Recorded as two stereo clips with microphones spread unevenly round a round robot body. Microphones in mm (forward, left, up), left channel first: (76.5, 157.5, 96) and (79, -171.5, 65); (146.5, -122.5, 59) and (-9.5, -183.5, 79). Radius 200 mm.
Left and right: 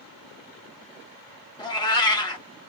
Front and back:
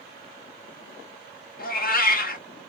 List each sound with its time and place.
1.6 s a cat meowing: 10° left, 1.3 m